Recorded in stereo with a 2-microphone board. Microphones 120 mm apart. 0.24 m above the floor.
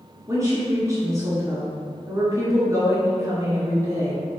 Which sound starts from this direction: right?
A woman speaking, at 0.3 s.